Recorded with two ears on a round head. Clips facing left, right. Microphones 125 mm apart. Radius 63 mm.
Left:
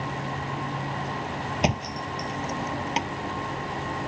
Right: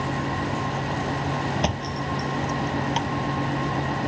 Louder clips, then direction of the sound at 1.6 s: Right 1 dB; 10° left (ahead or behind).